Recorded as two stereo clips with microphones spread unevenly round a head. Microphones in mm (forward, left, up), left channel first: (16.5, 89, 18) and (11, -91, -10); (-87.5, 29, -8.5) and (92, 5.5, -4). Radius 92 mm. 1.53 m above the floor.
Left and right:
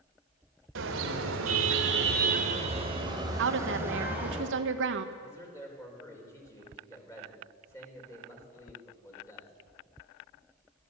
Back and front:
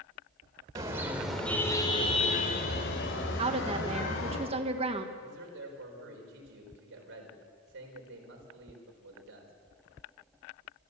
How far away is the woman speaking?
About 1.6 m.